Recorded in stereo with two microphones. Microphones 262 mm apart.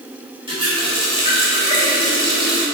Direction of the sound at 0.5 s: 20° right (ahead or behind).